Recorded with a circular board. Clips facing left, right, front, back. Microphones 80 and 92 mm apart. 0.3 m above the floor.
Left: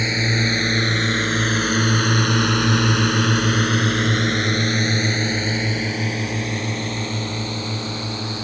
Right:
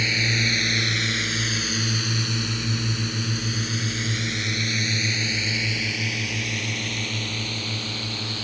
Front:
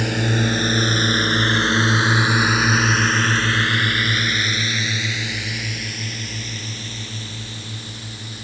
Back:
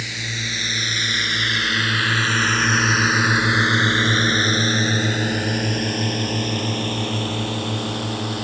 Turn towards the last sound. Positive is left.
turn(degrees=155)